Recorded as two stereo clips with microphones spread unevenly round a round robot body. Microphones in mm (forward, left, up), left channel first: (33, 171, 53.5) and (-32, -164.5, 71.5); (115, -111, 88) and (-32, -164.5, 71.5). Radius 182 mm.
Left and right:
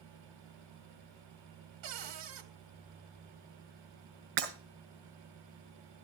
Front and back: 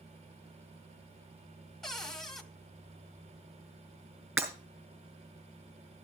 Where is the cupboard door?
65° right, 1.6 m.